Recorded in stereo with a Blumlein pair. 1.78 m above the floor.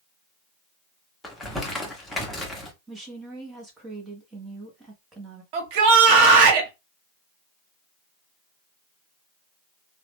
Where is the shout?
45° right, 1.2 m.